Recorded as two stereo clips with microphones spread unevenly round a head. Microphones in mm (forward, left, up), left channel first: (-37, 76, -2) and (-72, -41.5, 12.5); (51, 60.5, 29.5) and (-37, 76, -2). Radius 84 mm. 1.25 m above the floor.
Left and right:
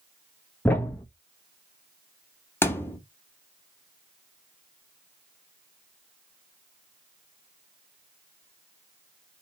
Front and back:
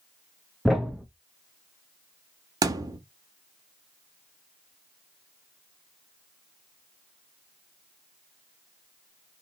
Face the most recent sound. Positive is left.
turn(degrees=130)